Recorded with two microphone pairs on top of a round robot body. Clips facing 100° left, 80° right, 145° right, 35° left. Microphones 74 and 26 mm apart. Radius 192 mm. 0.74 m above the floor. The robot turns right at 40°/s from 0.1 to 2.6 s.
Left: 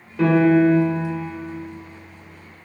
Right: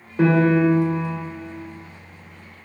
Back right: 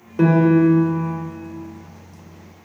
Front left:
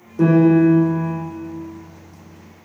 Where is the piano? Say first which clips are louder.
Left 2 dB, front left 1 dB; 145° right, 2.5 m; by 1.2 s 105° right, 2.5 m.